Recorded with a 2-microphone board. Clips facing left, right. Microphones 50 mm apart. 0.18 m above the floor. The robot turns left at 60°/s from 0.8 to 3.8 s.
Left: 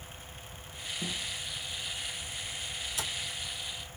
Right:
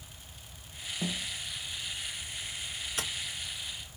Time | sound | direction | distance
1.0 | a snare drum | 35° right (ahead or behind) | 1.2 m
3.0 | tapping | 55° right (ahead or behind) | 0.8 m